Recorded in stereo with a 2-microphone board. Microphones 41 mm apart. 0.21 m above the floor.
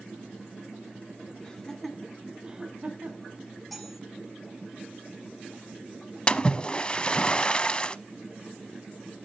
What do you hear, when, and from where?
1.4 s laughter: 15° left (ahead or behind), 2 m; by 3.4 s 45° right (ahead or behind), 1.9 m
3.7 s cutlery clinking: centre (ahead or behind), 6 m
6.3 s a splash: 25° left (ahead or behind), 0.6 m